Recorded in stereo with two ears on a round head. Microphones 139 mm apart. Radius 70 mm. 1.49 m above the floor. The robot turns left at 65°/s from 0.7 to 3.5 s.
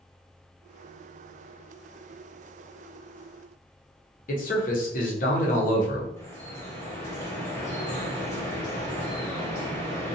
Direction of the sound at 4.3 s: 60° left (ahead or behind).